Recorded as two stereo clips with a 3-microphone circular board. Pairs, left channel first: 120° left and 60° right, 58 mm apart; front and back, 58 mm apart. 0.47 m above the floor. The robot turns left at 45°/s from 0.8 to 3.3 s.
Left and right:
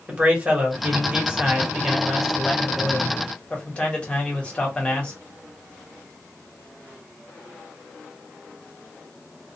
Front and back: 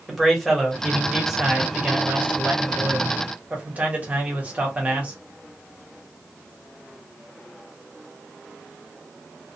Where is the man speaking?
85° right, 1.2 m; by 5.2 s 160° left, 1.2 m.